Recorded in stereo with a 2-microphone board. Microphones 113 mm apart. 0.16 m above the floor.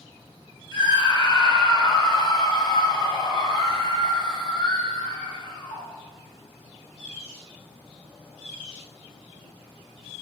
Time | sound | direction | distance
0.7 | a scream | 45° left (ahead or behind) | 4 m